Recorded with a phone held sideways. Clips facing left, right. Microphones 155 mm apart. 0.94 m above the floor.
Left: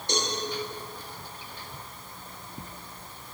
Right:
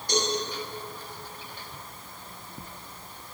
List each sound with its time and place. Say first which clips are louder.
0.1 s a cowbell: right 3 dB; 25° left (ahead or behind), 1.5 m